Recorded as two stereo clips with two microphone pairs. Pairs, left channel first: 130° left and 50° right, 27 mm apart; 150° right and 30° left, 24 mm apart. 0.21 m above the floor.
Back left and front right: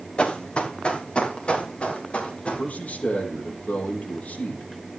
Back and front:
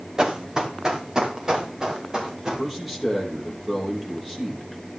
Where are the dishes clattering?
I don't hear dishes clattering.